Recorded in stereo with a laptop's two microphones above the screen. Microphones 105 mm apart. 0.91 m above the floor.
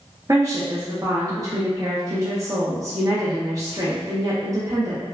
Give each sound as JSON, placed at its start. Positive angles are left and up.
{"t": 0.3, "sound": "a woman speaking", "side_deg": -35, "distance_m": 0.5}